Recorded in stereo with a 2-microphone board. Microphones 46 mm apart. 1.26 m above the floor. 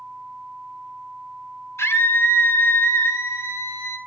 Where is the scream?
70° left (ahead or behind), 3 m.